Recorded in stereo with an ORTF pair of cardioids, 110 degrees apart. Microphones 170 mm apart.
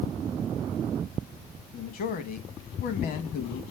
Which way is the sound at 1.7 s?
60° left.